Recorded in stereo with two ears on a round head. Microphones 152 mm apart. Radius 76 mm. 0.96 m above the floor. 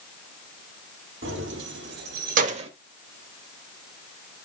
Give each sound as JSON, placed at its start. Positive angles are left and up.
{"t": 1.2, "sound": "keys jangling", "side_deg": -85, "distance_m": 1.7}